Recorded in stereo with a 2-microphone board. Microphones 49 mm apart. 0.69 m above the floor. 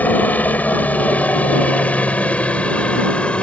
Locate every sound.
0.0 s a helicopter: 35° left (ahead or behind); by 3.4 s 25° left (ahead or behind)